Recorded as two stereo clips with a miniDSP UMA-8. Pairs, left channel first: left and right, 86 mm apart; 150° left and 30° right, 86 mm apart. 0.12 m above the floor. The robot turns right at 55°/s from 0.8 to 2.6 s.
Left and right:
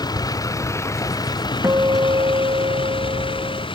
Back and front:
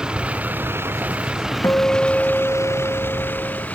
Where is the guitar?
150° right; by 3.6 s 95° right.